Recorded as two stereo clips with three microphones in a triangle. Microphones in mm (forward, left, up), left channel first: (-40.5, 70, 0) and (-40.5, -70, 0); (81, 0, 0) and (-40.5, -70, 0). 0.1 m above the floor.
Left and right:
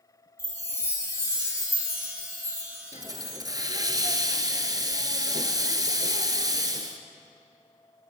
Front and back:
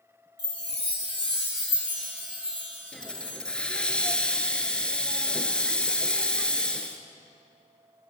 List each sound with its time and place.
0.4 s a chime: 25° right, 4 m
2.9 s a hiss: 50° right, 1.2 m